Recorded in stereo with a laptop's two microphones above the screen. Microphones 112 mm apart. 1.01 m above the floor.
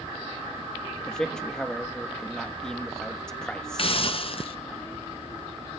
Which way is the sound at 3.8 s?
50° left (ahead or behind).